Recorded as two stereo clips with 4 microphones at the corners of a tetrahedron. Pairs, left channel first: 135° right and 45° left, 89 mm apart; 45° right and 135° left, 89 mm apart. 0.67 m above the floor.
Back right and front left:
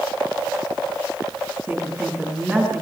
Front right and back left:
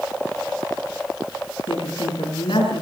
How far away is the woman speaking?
About 6.5 m.